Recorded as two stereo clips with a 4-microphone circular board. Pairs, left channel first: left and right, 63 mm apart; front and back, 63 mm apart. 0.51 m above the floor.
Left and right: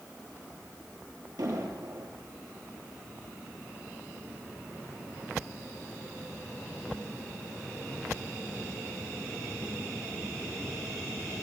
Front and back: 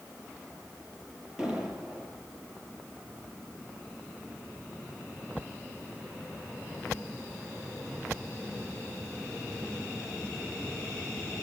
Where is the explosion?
100° right, 8 m.